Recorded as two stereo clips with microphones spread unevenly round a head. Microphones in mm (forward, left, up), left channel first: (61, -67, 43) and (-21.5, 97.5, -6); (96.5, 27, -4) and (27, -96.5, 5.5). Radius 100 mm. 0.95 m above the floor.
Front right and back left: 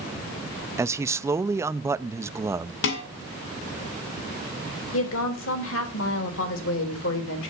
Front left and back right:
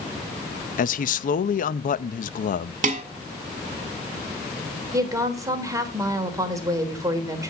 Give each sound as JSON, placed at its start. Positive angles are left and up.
{"t": 0.8, "sound": "a man speaking", "azimuth_deg": 45, "distance_m": 0.7}
{"t": 2.8, "sound": "dishes clattering", "azimuth_deg": -90, "distance_m": 2.5}
{"t": 4.9, "sound": "a woman speaking", "azimuth_deg": -55, "distance_m": 3.5}